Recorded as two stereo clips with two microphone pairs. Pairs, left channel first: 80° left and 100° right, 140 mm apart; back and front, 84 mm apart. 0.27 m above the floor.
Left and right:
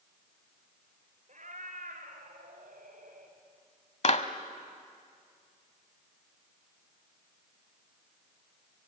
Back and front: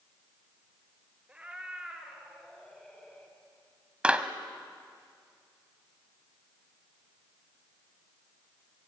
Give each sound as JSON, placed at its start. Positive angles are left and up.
{"t": 1.3, "sound": "a cat meowing", "azimuth_deg": -80, "distance_m": 2.5}
{"t": 4.0, "sound": "a clap", "azimuth_deg": 75, "distance_m": 1.1}